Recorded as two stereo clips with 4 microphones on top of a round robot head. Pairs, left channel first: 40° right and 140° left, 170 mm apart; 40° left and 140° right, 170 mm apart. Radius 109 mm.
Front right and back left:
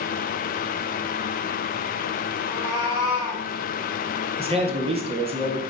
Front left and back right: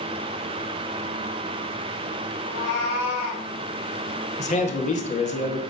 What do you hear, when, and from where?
2.4 s a cat meowing: 25° left, 3 m; by 3.5 s 40° left, 2.5 m
4.4 s a man speaking: 85° left, 2.0 m